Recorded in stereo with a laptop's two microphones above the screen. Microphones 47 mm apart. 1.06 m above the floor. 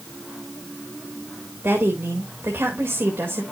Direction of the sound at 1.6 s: 55° right (ahead or behind).